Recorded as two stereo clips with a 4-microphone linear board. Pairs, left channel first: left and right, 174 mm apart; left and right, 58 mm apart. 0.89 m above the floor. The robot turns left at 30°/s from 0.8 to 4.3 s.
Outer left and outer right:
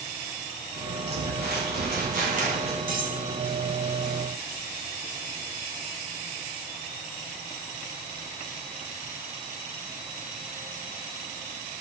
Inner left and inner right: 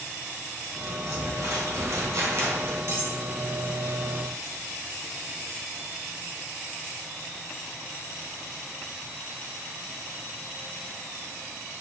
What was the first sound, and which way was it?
Crumpling, 85° right.